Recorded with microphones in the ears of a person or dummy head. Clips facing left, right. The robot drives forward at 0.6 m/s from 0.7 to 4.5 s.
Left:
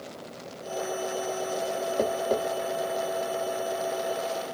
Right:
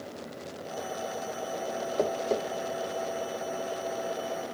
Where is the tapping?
Centre (ahead or behind), 0.9 m.